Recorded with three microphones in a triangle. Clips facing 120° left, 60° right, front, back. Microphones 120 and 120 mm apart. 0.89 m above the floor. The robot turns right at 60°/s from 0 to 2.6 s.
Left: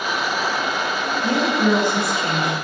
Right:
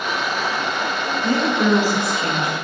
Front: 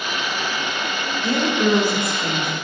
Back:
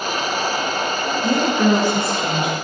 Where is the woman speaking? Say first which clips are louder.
Even, back 2 dB; 175° right, 0.8 m; by 2.5 s 95° right, 0.8 m.